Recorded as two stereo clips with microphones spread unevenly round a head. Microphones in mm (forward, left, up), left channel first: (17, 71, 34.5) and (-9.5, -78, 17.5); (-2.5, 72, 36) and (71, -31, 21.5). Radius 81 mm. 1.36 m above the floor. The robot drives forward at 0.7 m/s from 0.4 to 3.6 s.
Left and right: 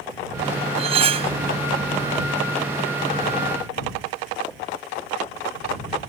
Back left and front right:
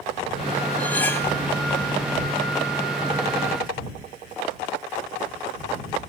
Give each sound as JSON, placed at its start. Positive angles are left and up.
{"t": 0.8, "sound": "cutlery clinking", "azimuth_deg": -155}